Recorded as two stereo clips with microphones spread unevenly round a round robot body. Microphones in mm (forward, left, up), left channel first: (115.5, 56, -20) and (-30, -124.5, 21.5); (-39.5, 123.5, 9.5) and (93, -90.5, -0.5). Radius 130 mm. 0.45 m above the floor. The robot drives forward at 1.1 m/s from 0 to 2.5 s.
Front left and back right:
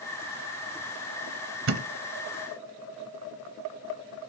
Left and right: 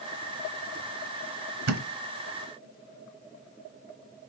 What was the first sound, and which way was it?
A thud, 90° right.